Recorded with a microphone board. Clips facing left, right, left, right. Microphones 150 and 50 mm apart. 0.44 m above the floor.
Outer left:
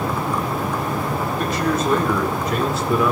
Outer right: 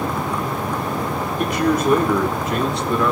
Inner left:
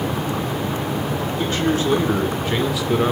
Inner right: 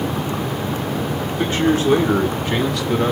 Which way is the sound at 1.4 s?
20° right (ahead or behind).